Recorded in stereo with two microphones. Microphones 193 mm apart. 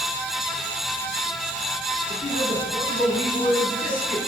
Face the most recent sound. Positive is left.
turn(degrees=45)  # may be behind; listen again after turning